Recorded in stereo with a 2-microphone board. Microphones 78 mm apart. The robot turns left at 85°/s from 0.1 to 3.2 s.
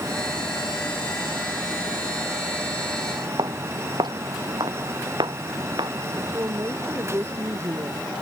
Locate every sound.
3.4 s footsteps: 70° right (ahead or behind)
6.2 s a woman speaking: 35° right (ahead or behind)